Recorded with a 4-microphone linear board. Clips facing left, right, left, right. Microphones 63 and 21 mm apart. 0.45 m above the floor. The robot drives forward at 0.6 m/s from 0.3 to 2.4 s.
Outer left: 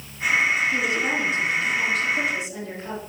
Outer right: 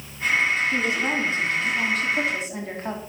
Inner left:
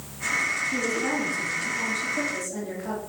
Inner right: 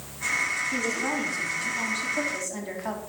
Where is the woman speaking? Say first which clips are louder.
Even, inner left 1 dB; 30° right (ahead or behind), 4 m; by 3.0 s 40° right (ahead or behind), 3 m.